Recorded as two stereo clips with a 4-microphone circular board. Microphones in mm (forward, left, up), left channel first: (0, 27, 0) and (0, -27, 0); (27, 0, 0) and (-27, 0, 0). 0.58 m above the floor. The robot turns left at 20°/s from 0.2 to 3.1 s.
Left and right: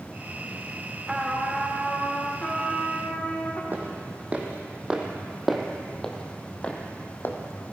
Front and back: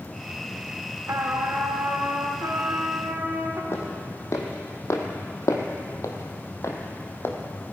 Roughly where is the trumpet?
Behind.